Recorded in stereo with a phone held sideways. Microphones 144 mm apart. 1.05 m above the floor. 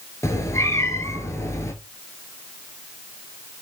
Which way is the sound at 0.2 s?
20° left (ahead or behind).